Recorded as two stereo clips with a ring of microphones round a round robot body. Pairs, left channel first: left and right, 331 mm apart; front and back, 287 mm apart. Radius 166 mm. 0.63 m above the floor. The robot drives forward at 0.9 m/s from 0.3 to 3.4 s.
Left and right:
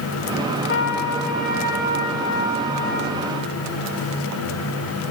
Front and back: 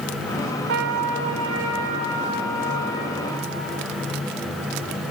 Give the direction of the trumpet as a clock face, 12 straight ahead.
7 o'clock.